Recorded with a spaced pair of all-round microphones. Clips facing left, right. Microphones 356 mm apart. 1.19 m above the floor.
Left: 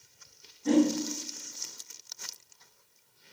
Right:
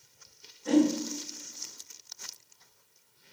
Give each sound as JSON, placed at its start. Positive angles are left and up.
{"t": 0.7, "sound": "a whoosh", "side_deg": 50, "distance_m": 1.7}